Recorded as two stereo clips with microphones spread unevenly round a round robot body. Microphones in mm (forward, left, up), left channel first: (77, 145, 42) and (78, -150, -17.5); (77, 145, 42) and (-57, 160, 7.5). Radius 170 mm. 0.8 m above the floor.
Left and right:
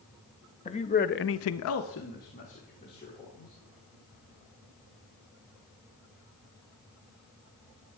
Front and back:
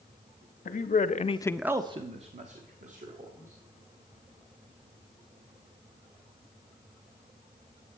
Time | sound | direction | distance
0.7 | a man speaking | 15° left | 1.0 m